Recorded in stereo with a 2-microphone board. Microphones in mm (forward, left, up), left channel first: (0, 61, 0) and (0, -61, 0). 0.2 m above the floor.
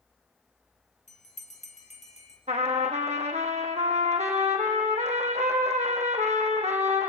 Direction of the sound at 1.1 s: 75° left (ahead or behind).